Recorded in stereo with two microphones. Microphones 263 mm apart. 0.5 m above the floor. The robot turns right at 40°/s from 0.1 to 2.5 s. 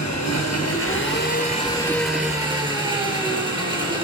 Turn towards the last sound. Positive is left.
turn(degrees=-165)